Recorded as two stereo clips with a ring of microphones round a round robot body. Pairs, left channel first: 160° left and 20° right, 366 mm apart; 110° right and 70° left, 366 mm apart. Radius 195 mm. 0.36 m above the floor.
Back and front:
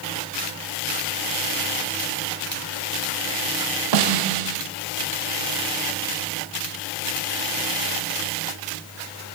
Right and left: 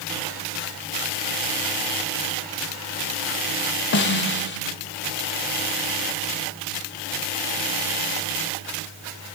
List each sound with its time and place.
3.9 s a snare drum: 50° right, 0.8 m